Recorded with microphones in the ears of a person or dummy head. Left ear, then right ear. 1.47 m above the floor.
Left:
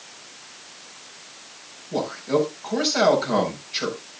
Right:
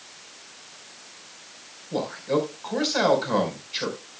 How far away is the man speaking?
About 5 m.